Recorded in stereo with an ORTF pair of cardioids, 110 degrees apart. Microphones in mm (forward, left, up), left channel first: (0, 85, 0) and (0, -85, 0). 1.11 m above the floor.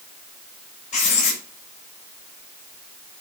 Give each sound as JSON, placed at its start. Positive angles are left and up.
{"t": 0.9, "sound": "writing", "azimuth_deg": 40, "distance_m": 5.5}